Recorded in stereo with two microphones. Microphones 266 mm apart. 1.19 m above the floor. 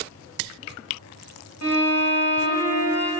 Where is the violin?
60° left (ahead or behind), 0.8 m.